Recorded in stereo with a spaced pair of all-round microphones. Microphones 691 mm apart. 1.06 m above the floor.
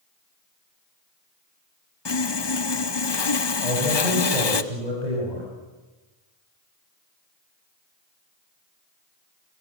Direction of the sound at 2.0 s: 40° left (ahead or behind).